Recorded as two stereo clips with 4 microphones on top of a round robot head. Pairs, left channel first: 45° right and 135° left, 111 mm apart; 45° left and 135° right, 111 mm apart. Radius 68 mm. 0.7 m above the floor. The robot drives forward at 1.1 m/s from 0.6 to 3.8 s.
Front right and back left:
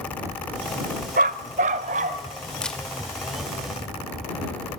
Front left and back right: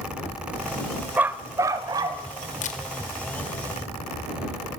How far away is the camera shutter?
About 2.5 m.